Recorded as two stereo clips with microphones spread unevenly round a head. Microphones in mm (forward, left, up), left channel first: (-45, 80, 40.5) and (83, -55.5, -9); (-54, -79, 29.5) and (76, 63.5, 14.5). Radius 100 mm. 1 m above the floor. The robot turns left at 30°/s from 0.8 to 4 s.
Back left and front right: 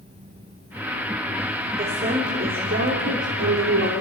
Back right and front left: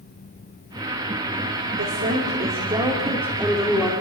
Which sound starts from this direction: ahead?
A woman speaking, at 1.8 s.